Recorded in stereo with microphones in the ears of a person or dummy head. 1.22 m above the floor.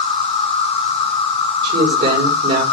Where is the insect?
35° left (ahead or behind), 1.6 m.